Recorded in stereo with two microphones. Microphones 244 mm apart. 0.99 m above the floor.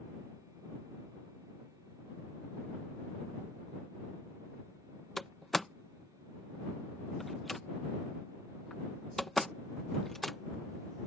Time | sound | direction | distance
5.2 | a door slam | centre (ahead or behind) | ?